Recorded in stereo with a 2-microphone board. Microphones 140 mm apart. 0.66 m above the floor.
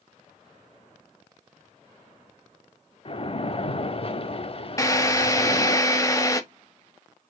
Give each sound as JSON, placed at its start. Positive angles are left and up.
{"t": 3.0, "sound": "a splash", "side_deg": 45, "distance_m": 0.6}
{"t": 4.8, "sound": "a drill", "side_deg": 20, "distance_m": 0.8}